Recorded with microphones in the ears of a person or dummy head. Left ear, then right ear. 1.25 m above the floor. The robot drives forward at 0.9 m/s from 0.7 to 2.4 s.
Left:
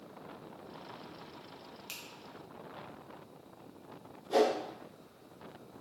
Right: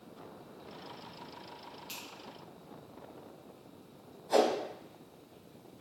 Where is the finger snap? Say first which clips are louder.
Even; 25° left (ahead or behind), 0.6 m; by 2.0 s 20° left (ahead or behind), 0.7 m.